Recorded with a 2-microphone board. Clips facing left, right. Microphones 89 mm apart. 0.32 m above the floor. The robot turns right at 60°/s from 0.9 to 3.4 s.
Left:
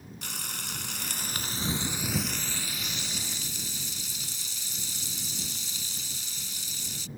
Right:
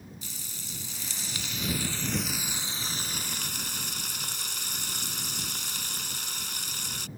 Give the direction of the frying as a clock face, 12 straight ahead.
9 o'clock.